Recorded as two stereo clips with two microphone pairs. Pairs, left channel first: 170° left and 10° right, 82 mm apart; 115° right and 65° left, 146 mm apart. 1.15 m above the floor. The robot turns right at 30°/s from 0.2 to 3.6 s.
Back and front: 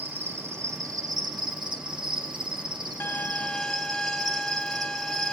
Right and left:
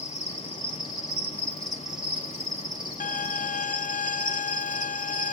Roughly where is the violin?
Behind right.